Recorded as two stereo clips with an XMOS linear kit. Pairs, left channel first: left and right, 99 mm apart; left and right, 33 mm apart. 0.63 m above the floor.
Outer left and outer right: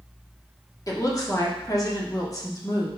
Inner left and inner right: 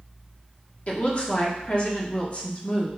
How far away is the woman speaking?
About 1.5 m.